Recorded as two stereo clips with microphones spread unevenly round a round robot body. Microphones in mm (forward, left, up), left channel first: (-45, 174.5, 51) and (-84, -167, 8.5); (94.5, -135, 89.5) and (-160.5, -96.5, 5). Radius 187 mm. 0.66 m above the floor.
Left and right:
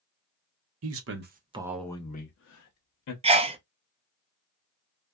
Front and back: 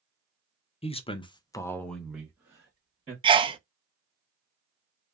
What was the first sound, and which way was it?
A man speaking, 90° right.